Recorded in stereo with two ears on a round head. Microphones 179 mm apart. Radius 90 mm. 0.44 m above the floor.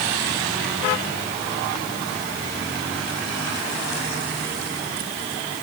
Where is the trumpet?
I don't hear a trumpet.